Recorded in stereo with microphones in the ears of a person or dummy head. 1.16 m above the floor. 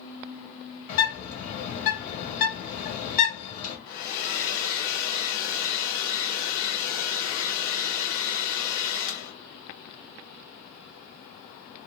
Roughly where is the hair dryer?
Left.